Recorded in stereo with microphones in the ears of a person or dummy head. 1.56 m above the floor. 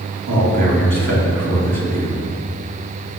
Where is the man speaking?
65° right (ahead or behind), 4.5 m.